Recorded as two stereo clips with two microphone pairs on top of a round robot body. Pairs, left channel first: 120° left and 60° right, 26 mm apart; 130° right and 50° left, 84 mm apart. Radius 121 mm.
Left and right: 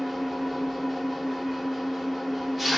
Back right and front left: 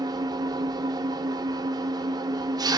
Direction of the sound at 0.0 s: 30° left.